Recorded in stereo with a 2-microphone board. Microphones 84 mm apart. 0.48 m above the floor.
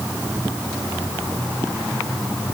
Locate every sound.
Only background noise.